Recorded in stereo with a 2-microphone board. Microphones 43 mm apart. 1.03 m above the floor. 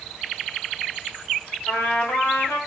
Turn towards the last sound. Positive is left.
turn(degrees=75)  # may be behind; listen again after turning